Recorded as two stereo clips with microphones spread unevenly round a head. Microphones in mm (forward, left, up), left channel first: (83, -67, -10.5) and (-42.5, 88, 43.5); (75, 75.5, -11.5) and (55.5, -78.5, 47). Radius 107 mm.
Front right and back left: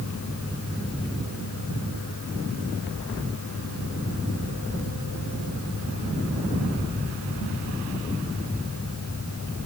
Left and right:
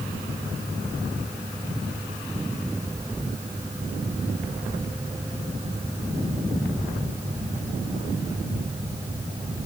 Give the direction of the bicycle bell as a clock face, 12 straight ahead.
No bicycle bell in this recording.